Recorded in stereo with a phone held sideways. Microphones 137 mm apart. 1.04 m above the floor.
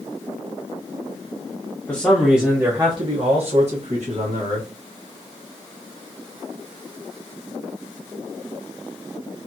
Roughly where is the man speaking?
Centre.